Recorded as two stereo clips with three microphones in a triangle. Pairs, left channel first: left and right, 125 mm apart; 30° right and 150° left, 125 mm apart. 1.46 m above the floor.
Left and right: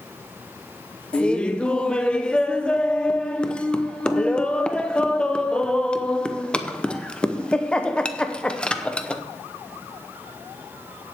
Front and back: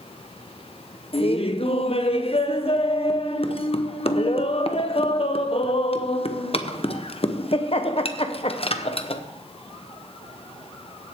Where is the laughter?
5° left, 0.9 m.